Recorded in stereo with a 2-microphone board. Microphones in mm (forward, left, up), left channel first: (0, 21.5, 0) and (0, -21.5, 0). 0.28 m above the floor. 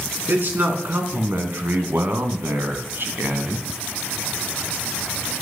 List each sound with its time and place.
0.3 s a man speaking: 50° right (ahead or behind), 2.5 m